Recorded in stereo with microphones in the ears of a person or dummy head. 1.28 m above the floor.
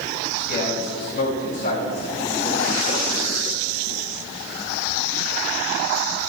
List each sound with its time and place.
0.4 s a man speaking: 60° left (ahead or behind), 4.5 m; by 3.1 s 30° left (ahead or behind), 4.5 m